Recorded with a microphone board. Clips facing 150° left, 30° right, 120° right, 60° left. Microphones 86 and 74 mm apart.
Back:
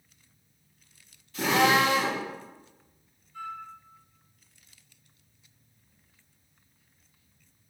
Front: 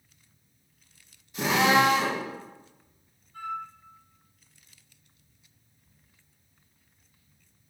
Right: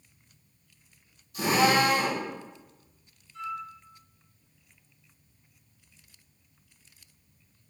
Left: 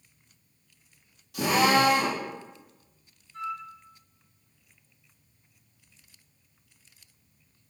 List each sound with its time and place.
1.3 s a drill: 45° left, 3.5 m
3.3 s a flute: 15° left, 3.5 m